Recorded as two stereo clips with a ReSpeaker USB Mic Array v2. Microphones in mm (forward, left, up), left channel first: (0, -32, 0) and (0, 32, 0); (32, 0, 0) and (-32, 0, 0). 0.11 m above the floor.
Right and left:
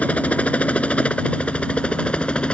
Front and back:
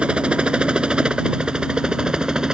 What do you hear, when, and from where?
0.0 s a helicopter: 125° right